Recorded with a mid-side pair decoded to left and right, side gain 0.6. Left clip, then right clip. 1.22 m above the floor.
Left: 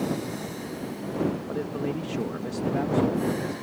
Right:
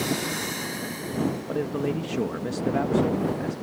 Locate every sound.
1.5 s a man speaking: 20° right